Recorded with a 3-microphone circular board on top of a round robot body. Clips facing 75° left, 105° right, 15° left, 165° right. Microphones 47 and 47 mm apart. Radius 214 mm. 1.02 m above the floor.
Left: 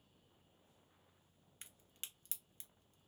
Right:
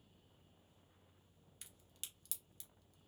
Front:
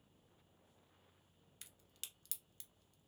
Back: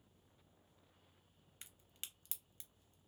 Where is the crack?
135° left, 0.8 m.